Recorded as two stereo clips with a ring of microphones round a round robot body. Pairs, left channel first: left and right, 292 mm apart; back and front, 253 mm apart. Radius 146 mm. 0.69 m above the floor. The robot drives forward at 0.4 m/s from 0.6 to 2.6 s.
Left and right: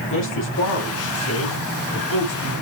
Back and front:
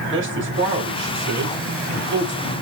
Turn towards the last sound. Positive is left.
turn(degrees=50)